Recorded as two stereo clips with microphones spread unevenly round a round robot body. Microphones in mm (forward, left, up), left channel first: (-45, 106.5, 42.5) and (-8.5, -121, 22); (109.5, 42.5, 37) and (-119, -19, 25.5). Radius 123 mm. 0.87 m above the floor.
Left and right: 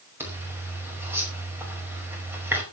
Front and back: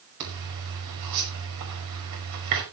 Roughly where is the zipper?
Behind.